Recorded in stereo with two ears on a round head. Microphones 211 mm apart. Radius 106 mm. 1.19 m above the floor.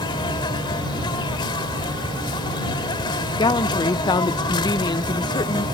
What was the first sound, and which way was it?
An insect, 20° left (ahead or behind).